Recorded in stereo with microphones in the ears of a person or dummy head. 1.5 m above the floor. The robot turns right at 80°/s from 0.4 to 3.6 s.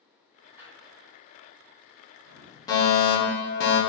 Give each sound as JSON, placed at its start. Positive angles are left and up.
{"t": 0.6, "sound": "a drawer", "side_deg": -20, "distance_m": 1.8}
{"t": 2.7, "sound": "a fire alarm", "azimuth_deg": 30, "distance_m": 0.9}